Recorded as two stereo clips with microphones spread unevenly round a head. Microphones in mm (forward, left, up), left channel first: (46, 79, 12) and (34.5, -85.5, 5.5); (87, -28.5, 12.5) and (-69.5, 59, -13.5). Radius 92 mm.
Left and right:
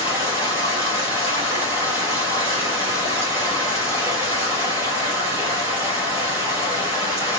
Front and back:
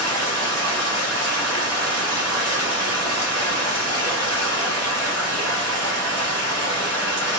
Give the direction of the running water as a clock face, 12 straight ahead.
6 o'clock.